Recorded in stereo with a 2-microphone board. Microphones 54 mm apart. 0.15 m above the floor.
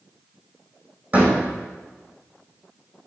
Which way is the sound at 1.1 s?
25° right (ahead or behind).